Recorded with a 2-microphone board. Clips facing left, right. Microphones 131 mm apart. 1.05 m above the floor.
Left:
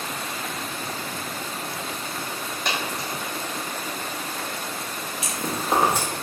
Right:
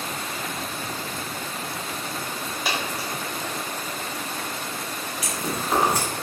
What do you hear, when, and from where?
2.6 s a dropped coin: 5° right (ahead or behind), 0.6 m
5.2 s chewing: 25° left (ahead or behind), 0.7 m